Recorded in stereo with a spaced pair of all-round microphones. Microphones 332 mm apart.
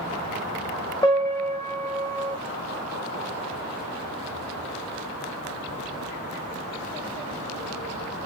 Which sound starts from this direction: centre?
A piano, at 1.0 s.